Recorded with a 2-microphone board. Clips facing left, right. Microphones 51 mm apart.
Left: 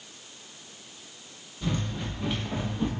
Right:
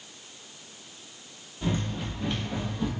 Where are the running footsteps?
20° right (ahead or behind), 1.0 m; by 2.9 s 25° left (ahead or behind), 1.0 m.